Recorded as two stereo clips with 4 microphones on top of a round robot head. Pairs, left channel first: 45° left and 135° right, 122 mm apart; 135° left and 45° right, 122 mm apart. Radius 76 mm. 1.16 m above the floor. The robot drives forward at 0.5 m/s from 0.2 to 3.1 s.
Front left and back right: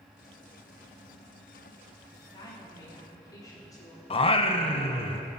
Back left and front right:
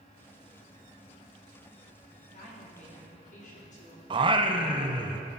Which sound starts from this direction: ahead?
Singing, at 4.1 s.